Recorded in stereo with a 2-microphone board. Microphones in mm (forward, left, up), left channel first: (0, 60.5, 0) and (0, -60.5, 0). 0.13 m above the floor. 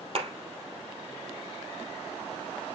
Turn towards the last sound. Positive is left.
turn(degrees=-55)  # may be behind; listen again after turning